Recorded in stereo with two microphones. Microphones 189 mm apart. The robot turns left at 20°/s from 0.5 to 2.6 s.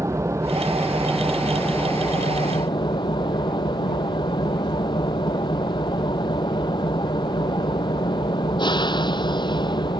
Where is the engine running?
165° right; by 10.0 s 155° left.